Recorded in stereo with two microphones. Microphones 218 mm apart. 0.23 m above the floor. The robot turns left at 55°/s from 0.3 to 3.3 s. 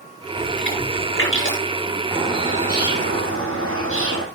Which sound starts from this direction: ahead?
A bird, at 2.1 s.